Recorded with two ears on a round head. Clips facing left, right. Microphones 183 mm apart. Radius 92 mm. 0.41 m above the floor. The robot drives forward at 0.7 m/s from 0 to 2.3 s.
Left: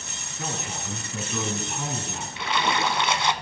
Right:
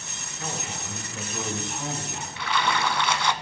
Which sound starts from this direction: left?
A man speaking, at 0.4 s.